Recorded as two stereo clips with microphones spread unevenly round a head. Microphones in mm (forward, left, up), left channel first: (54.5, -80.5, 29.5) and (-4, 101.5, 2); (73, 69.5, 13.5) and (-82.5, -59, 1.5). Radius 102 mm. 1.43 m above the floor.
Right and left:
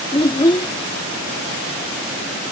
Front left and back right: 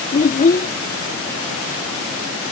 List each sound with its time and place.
0.1 s a child speaking: 10° right